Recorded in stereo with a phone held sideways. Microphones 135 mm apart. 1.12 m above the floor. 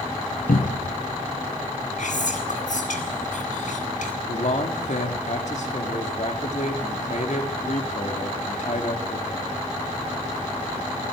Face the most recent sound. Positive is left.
turn(degrees=60)  # may be behind; listen again after turning